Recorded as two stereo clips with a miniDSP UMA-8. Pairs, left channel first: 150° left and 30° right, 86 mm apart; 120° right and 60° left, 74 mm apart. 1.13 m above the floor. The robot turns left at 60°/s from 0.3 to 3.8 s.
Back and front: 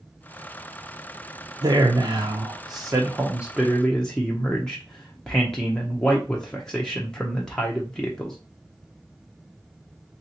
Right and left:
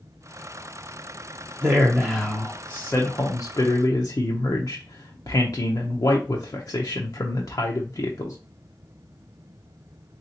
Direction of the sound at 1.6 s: 5° left.